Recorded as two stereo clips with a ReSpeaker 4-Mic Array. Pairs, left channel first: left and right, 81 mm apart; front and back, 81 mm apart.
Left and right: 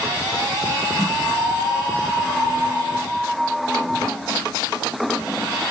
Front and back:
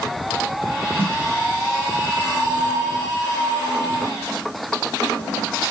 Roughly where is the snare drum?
Behind.